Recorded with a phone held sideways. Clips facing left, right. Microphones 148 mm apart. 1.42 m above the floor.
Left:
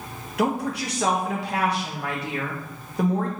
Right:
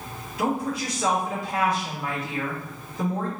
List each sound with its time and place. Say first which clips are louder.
0.4 s a woman speaking: left 2 dB; 75° left (ahead or behind), 1.0 m